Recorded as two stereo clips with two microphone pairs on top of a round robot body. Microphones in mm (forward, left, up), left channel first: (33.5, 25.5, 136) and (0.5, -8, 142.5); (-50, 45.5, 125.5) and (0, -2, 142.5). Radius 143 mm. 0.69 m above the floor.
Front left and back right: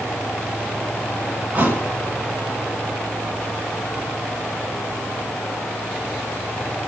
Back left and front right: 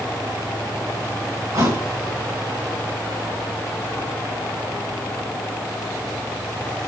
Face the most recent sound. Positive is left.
turn(degrees=-80)